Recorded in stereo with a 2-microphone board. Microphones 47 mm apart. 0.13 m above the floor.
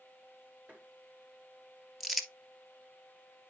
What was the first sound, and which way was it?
Tapping, 30° right (ahead or behind).